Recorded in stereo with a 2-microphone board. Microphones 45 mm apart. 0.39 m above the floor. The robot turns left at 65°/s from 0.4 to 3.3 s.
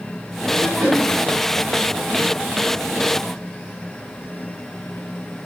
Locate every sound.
0.5 s throat clearing: 110° right, 6 m; by 1.1 s 145° right, 6 m